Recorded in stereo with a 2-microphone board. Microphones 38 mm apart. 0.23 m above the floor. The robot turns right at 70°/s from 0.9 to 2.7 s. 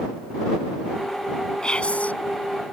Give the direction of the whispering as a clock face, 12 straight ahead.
11 o'clock.